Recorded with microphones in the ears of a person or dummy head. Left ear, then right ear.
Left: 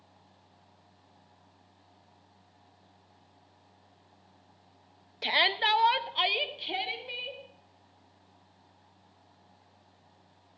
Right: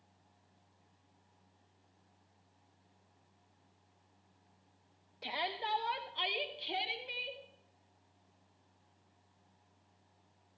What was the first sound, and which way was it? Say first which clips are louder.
A shout: left 12 dB; 55° left (ahead or behind).